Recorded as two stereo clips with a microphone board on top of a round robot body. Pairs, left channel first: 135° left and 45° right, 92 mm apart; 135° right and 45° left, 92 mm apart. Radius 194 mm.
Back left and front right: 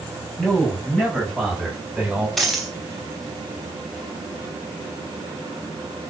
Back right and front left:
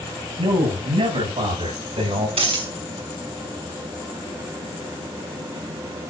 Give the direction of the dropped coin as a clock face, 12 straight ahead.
10 o'clock.